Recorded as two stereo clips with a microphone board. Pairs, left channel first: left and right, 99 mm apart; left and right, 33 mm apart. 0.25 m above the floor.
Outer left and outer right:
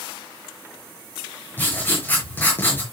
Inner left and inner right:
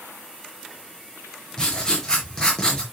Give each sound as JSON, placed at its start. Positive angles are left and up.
{"t": 1.6, "sound": "writing", "side_deg": 20, "distance_m": 5.0}